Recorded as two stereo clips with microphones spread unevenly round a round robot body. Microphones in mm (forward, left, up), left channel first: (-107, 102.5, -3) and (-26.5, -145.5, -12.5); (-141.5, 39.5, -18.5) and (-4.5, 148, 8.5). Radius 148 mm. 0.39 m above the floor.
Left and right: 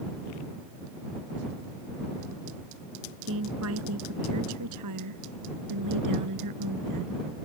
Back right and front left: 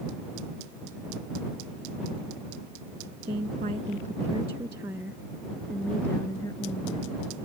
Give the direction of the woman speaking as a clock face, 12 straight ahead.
1 o'clock.